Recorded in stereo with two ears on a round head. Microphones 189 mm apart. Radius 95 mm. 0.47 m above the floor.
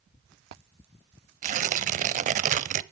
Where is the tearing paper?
35° right (ahead or behind), 0.5 m.